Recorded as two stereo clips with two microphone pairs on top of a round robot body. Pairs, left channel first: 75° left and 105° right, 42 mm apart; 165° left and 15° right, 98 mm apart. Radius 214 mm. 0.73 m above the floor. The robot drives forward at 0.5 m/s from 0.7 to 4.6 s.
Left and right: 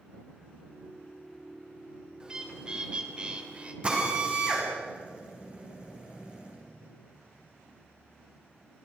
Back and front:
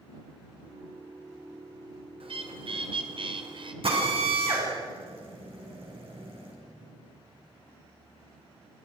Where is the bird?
35° right, 3 m; by 3.7 s 45° right, 2.5 m.